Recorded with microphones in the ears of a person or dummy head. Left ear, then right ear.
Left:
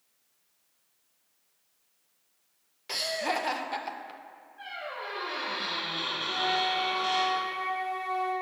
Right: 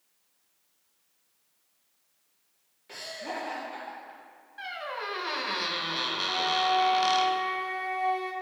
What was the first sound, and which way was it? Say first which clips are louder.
Laughter: left 7 dB; 45° left (ahead or behind).